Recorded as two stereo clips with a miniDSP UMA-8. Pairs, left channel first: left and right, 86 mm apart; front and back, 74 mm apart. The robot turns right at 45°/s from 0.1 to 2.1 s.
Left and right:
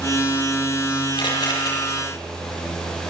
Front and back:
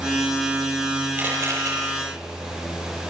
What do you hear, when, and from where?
1.2 s a camera shutter: 115° left, 9.5 m; by 1.7 s 140° left, 9.5 m